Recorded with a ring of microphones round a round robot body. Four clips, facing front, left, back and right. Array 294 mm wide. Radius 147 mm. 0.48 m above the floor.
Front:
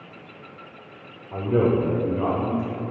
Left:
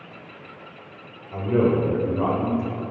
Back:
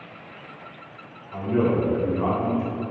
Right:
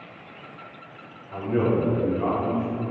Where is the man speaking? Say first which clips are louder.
Left 3 dB, front 2 dB; 15° left, 1.5 m; by 2.8 s 75° left, 2.5 m.